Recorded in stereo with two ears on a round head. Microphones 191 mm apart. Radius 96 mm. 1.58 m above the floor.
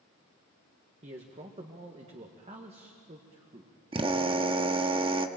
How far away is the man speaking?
About 1.6 m.